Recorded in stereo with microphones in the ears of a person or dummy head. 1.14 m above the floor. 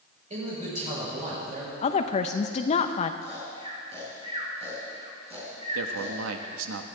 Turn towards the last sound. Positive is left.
turn(degrees=-85)